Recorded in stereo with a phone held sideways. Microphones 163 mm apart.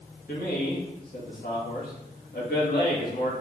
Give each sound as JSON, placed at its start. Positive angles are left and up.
{"t": 0.3, "sound": "a man speaking", "side_deg": 70, "distance_m": 2.0}